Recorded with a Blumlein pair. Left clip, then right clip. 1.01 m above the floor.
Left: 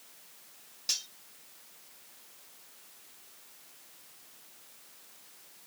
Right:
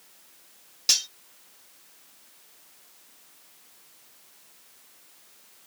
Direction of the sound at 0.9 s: 30° right.